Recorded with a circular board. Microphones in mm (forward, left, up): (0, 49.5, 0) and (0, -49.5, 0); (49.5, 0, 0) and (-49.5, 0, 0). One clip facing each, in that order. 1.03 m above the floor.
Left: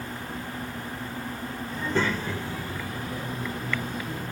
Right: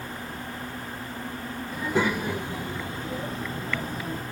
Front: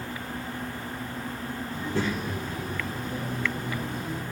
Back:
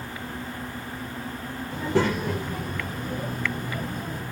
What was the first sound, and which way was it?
A child speaking, 175° right.